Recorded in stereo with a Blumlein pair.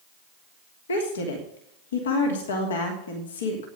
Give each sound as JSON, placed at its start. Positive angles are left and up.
{"t": 0.9, "sound": "a woman speaking", "azimuth_deg": 65, "distance_m": 3.0}